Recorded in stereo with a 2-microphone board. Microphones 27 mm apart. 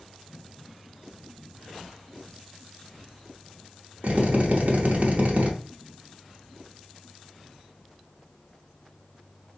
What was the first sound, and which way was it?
A drill, 60° right (ahead or behind).